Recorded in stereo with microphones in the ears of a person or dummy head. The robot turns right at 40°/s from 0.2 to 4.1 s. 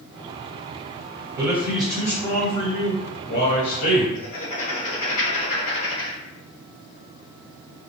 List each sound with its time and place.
1.4 s a man speaking: 20° right, 1.7 m; by 4.0 s 90° left, 1.7 m
4.2 s writing: 85° left, 1.3 m